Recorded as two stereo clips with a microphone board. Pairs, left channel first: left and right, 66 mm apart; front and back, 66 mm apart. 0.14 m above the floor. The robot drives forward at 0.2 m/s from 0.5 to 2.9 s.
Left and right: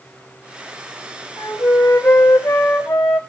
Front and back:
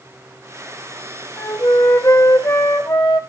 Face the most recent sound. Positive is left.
turn(degrees=65)